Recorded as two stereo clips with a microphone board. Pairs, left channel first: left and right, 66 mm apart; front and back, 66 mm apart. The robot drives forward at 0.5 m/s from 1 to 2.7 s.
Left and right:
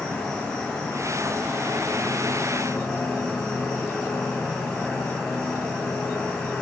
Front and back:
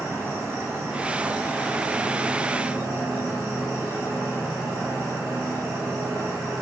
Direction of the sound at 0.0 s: 160° left.